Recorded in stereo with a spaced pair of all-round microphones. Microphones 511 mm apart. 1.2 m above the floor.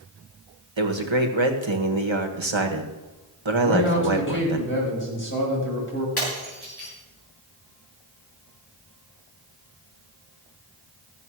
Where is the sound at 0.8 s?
65° right (ahead or behind), 1.6 m.